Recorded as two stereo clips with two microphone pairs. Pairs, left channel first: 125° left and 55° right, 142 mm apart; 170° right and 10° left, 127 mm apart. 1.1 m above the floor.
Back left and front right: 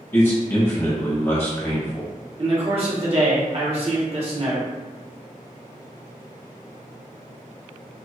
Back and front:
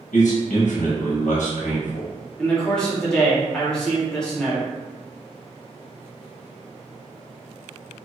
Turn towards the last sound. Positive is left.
turn(degrees=-90)